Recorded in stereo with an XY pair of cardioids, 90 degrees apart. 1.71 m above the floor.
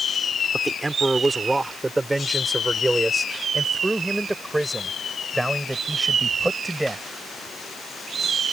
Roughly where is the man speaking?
Ahead.